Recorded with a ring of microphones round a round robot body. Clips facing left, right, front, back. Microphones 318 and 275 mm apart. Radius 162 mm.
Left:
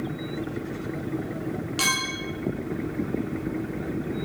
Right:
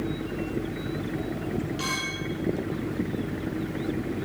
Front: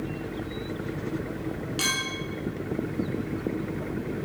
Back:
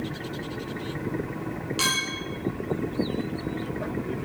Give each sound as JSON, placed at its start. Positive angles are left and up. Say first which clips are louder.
{"t": 1.8, "sound": "a clink", "louder": "left 1 dB, even", "azimuth_deg": 100, "distance_m": 9.0}